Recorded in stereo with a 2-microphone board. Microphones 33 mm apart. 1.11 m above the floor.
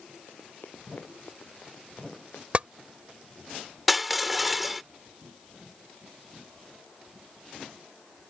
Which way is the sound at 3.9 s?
5° right (ahead or behind).